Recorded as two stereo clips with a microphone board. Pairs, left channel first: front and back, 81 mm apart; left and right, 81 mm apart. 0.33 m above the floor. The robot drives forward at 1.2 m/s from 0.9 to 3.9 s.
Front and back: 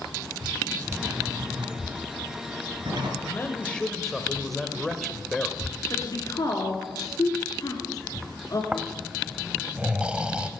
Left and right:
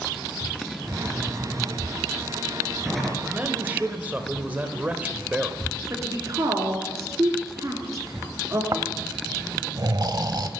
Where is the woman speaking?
40° right, 3.5 m.